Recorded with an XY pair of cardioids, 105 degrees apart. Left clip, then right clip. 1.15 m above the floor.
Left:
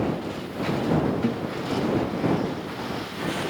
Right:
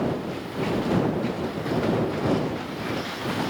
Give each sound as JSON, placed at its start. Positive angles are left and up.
{"t": 1.2, "sound": "a guitar", "azimuth_deg": 30}